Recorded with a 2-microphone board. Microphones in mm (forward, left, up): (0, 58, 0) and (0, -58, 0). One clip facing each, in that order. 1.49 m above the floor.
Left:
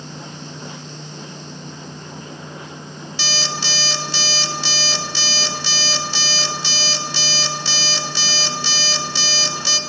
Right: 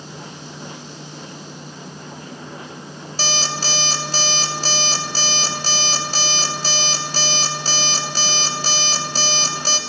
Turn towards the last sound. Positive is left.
turn(degrees=-40)  # may be behind; listen again after turning